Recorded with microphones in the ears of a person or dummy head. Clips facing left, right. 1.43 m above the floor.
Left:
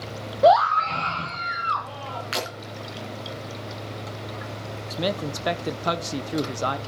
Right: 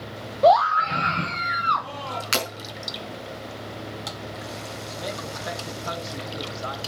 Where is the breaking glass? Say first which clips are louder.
Right 2 dB; 55° right (ahead or behind), 4.5 m.